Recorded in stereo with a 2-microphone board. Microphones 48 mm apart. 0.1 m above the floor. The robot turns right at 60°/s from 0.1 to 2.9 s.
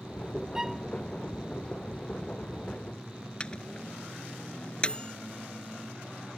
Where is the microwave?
20° left (ahead or behind).